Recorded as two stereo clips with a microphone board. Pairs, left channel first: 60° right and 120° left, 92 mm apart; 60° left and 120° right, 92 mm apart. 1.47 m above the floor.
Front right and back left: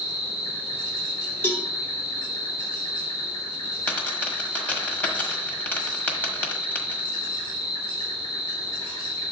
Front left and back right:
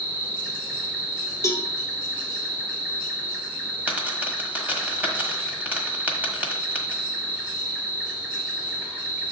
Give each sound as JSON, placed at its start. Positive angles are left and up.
{"t": 0.0, "sound": "an insect", "azimuth_deg": -50, "distance_m": 3.0}
{"t": 1.4, "sound": "a cowbell", "azimuth_deg": 5, "distance_m": 0.8}
{"t": 3.9, "sound": "a dropped coin", "azimuth_deg": -90, "distance_m": 1.3}